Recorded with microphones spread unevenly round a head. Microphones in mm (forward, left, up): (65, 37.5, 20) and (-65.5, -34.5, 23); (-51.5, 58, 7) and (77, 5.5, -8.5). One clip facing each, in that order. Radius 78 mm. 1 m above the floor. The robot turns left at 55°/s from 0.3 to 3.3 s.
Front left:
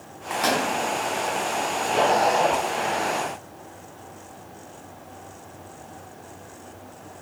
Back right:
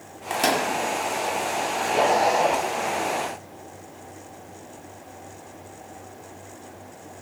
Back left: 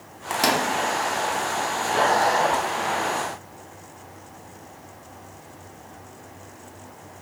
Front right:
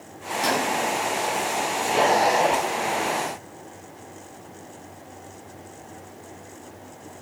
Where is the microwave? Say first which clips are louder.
Back right 1 dB, back left 1 dB; 165° left, 0.7 m; by 0.7 s 145° left, 0.7 m.